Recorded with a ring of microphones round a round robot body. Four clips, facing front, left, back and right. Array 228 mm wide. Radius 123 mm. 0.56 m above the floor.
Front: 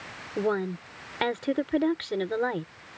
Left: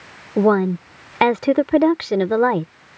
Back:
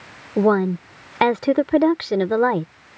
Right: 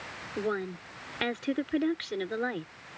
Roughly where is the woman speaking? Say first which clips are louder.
Left 16 dB, back 10 dB; behind left.